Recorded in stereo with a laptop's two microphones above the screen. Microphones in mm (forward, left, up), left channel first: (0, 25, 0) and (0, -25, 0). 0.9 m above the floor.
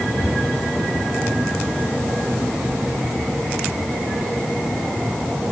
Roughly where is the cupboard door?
Left.